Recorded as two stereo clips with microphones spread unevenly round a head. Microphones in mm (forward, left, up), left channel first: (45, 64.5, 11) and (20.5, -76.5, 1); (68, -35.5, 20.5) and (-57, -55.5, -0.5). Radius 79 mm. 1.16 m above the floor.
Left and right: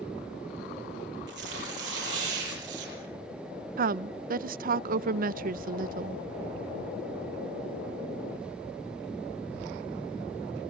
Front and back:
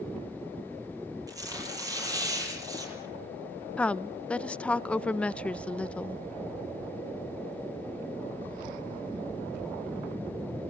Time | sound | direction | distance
1.3 | tearing paper | 110° right | 8.5 m
3.8 | a woman speaking | 70° right | 0.6 m